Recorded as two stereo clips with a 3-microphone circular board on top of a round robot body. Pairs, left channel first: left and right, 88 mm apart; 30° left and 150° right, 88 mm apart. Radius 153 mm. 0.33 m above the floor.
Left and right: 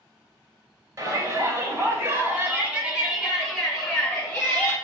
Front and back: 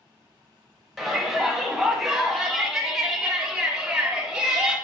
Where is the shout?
60° right, 1.8 m; by 4.8 s 145° left, 1.5 m.